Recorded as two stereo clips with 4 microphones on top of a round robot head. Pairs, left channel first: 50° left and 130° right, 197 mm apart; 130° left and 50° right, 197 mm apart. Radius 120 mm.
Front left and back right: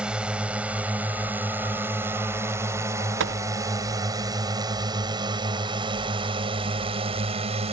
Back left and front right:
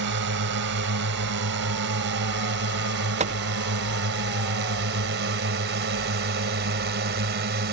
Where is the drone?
50° right; by 7.7 s 75° right.